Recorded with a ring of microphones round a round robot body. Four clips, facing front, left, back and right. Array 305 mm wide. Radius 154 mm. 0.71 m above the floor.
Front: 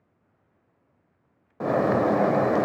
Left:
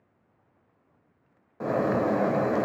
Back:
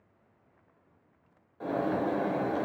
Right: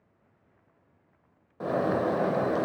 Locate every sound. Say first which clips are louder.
1.6 s a bird: left 2 dB, front 8 dB; 5° left, 0.6 m